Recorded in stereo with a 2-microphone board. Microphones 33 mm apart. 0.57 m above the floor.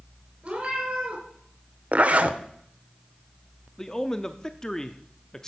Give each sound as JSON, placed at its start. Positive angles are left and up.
{"t": 0.4, "sound": "a cat meowing", "side_deg": -30, "distance_m": 4.5}
{"t": 1.9, "sound": "a zipper", "side_deg": -45, "distance_m": 0.8}
{"t": 3.8, "sound": "a man speaking", "side_deg": 15, "distance_m": 0.6}